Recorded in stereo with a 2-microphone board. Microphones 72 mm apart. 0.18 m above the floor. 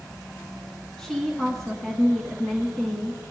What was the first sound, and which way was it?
A woman speaking, 5° left (ahead or behind).